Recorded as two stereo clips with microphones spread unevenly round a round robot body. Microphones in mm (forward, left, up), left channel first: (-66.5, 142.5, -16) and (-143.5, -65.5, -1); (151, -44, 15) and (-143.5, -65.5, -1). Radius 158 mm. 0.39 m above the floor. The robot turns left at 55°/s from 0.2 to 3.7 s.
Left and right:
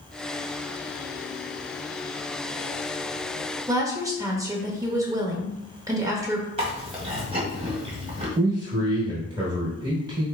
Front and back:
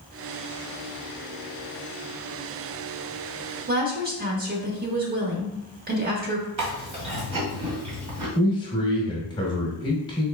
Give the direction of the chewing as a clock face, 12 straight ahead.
6 o'clock.